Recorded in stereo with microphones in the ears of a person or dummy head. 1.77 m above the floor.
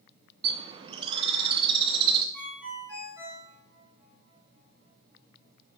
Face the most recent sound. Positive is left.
turn(degrees=-15)  # may be behind; listen again after turning